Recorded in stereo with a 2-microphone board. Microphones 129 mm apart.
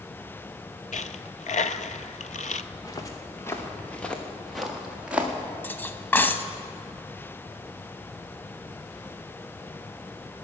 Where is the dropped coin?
75° left (ahead or behind), 0.6 m.